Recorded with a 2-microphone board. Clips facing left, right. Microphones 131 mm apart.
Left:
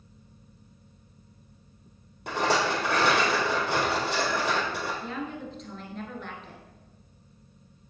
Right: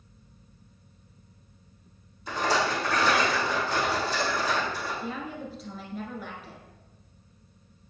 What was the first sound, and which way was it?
A rattle, 65° left (ahead or behind).